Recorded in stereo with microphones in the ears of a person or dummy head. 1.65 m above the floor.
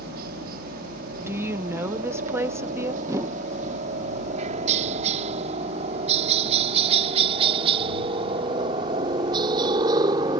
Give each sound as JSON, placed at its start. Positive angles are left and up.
{"t": 0.0, "sound": "a helicopter", "side_deg": -55}
{"t": 1.2, "sound": "a woman speaking", "side_deg": -20}
{"t": 3.0, "sound": "a whoosh", "side_deg": -15}